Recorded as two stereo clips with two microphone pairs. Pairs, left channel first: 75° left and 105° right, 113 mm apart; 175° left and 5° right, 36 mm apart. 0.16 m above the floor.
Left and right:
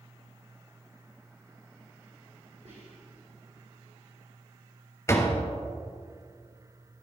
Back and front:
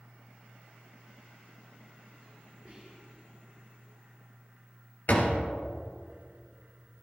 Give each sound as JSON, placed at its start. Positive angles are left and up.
{"t": 2.6, "sound": "whispering", "azimuth_deg": -85, "distance_m": 3.5}
{"t": 5.1, "sound": "a door slam", "azimuth_deg": 140, "distance_m": 1.8}